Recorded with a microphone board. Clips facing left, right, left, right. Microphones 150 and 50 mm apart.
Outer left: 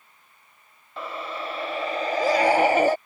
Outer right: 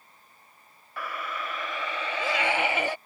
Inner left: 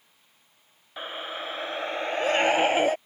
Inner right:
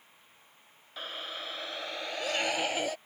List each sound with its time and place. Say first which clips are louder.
1.0 s a scream: outer left 3 dB, inner left 5 dB; 25° left (ahead or behind); by 3.0 s 45° left (ahead or behind)